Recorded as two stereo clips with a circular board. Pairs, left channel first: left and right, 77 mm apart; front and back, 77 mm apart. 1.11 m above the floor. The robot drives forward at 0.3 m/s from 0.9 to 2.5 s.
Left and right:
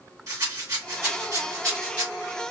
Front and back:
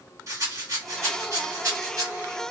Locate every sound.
0.3 s a rattle: 135° right, 1.6 m; by 2.1 s 145° right, 1.8 m